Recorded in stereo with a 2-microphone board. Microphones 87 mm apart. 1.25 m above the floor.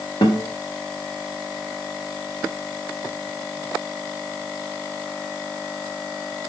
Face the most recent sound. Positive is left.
turn(degrees=65)  # may be behind; listen again after turning